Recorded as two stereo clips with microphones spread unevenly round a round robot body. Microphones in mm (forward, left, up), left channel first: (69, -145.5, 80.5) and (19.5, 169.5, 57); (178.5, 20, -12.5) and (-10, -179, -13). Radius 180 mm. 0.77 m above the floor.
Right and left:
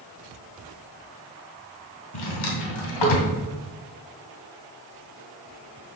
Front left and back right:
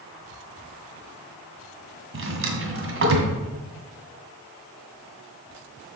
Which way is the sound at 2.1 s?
95° right.